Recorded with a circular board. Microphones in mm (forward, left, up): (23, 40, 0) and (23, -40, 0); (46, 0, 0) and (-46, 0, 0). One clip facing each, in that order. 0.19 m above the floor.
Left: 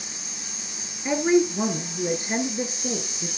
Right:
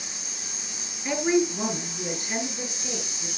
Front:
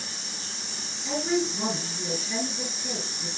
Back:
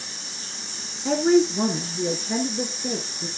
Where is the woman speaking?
165° left, 3 m; by 3.3 s 135° left, 2.5 m.